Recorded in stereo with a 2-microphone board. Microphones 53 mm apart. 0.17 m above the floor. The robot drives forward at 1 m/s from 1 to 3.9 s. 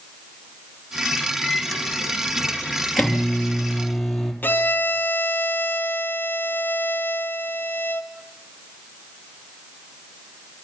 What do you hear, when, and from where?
1.4 s a microwave: 5° left (ahead or behind), 1.5 m; by 4.3 s centre (ahead or behind), 3.5 m
4.4 s a violin: 35° left (ahead or behind), 2 m